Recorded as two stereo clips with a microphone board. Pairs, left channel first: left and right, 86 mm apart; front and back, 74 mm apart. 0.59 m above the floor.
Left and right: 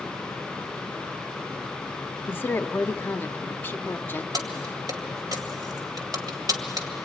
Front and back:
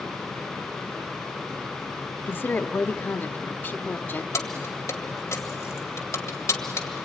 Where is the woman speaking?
40° left, 0.9 m.